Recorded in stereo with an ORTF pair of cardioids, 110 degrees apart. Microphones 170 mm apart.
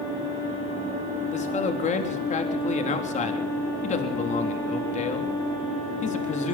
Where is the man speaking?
45° left, 3.5 m.